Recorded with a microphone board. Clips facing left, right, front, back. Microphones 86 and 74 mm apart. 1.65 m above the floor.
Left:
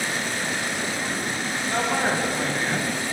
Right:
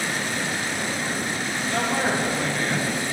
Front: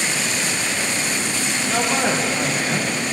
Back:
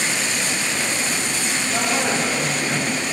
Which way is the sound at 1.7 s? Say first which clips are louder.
Even, front 2 dB; 25° left.